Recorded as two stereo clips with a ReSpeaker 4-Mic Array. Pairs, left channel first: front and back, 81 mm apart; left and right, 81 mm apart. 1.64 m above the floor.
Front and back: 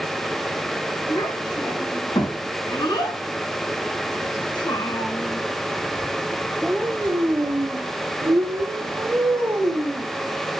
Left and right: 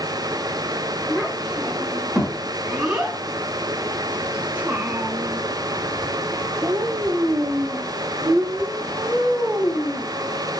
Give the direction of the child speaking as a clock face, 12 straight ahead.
12 o'clock.